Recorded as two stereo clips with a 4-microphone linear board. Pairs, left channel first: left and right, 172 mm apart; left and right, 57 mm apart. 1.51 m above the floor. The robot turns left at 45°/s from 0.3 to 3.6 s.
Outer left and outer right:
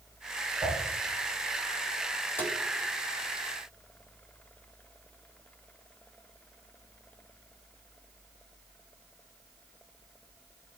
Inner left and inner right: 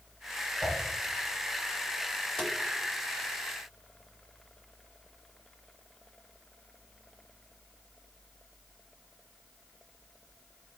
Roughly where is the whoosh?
Centre.